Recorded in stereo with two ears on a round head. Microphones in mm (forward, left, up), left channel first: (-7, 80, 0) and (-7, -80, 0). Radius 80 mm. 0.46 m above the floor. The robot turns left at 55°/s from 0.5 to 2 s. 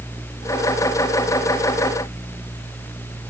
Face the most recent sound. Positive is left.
No sound to turn to.